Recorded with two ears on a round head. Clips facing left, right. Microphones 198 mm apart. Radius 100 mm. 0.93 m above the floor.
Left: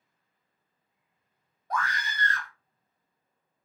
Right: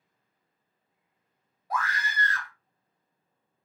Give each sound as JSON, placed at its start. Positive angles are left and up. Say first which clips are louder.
{"t": 1.7, "sound": "a scream", "louder": "even", "side_deg": -5, "distance_m": 1.1}